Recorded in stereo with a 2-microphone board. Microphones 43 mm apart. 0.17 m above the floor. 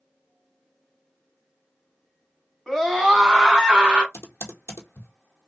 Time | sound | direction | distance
2.7 | a scream | 5° left (ahead or behind) | 1.5 m
4.1 | typing on a keyboard | 85° left | 0.8 m